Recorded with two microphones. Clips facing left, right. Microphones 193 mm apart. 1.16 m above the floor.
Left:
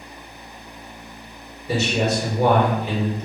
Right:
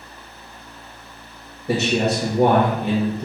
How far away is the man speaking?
About 1.2 m.